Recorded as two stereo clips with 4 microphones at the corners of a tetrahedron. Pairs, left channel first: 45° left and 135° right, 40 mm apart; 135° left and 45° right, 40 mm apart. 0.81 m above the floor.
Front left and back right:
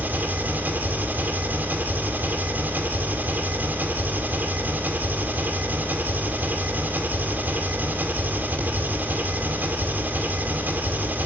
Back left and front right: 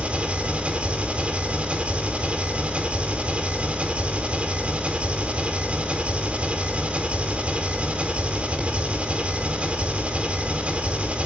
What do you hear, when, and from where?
0.0 s an engine running: 100° right, 2.5 m